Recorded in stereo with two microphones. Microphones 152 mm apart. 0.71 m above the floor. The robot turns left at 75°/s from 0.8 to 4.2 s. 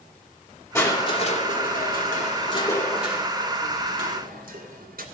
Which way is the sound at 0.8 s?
160° left.